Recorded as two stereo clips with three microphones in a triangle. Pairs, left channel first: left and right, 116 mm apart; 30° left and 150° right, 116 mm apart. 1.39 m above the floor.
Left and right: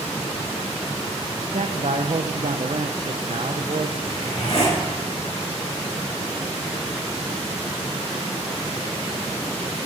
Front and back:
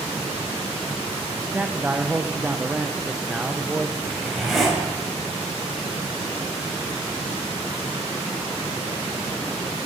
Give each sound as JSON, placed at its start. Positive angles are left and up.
{"t": 1.5, "sound": "a man speaking", "azimuth_deg": -70, "distance_m": 0.9}
{"t": 4.0, "sound": "a zipper", "azimuth_deg": 120, "distance_m": 7.5}